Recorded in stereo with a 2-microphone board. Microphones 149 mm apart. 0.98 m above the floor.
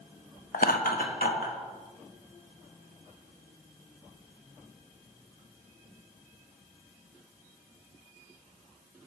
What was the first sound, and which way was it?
Laughter, 65° left (ahead or behind).